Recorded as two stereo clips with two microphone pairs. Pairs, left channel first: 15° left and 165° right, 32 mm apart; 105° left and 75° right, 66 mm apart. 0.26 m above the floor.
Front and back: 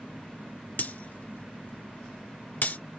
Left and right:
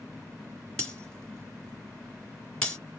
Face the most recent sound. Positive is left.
turn(degrees=30)